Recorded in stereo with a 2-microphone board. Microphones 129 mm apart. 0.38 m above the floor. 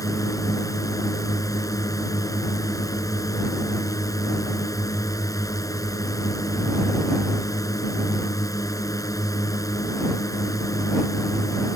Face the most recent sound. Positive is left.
turn(degrees=25)  # may be behind; listen again after turning